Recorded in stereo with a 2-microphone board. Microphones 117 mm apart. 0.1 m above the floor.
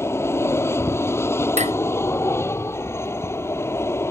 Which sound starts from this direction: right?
Dishes clattering, at 1.6 s.